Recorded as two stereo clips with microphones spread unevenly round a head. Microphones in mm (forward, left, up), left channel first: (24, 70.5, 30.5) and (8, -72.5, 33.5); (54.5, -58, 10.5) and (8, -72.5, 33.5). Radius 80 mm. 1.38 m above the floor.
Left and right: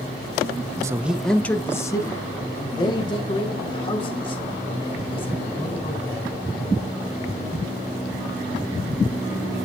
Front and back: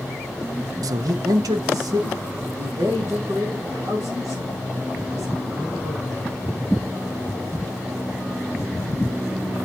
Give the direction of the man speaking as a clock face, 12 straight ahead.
6 o'clock.